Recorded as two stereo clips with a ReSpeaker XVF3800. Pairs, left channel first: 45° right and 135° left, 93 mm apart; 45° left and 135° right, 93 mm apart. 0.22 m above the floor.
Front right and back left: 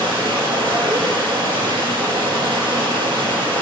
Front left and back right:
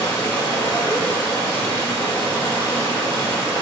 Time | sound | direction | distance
0.0 | running water | 105° left | 4 m